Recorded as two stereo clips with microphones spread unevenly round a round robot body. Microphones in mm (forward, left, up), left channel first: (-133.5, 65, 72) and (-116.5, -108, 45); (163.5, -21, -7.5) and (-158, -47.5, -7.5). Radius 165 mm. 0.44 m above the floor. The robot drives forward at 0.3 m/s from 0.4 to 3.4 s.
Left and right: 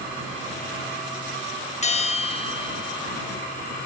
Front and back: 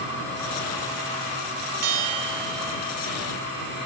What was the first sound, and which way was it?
A bell, 150° left.